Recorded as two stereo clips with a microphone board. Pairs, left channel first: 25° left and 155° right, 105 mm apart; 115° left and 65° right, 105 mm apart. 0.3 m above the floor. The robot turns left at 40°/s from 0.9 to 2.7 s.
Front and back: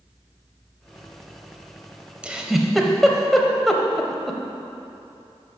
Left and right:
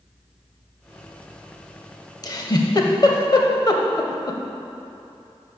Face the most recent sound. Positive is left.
turn(degrees=110)